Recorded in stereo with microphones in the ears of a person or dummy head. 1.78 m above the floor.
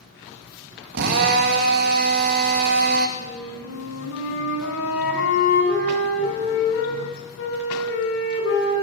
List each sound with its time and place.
0.9 s a drill: 60° right (ahead or behind), 2.5 m
3.2 s a flute: 70° left (ahead or behind), 7.5 m